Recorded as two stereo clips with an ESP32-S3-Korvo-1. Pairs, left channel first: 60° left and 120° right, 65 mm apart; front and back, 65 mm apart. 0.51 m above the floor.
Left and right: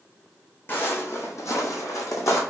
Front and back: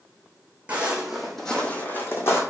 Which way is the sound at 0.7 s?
115° left.